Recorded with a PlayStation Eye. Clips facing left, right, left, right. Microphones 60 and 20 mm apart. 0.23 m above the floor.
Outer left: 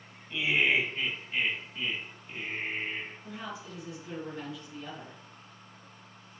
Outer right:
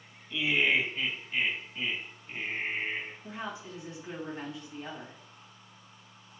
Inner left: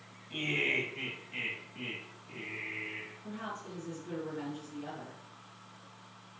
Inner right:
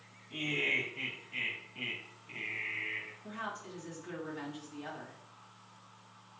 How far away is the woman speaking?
About 1.5 m.